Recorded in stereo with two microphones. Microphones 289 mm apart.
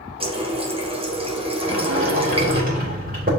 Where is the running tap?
20° right (ahead or behind), 1.2 m.